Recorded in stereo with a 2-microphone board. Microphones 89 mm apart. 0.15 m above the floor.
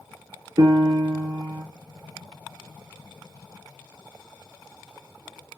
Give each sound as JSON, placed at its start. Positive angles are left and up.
{"t": 0.6, "sound": "a piano", "side_deg": -55, "distance_m": 0.7}